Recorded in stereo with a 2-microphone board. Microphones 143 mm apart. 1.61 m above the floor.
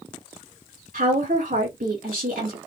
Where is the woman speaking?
75° right (ahead or behind), 2.5 m.